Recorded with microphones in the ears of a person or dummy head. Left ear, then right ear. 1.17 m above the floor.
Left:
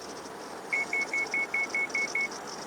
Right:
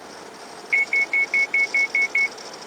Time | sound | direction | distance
0.7 | an alarm | 25° right (ahead or behind) | ?